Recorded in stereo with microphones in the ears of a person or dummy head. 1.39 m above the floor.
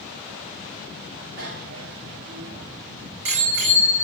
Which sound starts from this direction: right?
A bicycle bell, at 1.4 s.